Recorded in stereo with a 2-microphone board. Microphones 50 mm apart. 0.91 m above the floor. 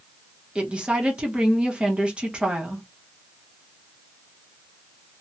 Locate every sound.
0.6 s a woman speaking: 20° right (ahead or behind), 1.0 m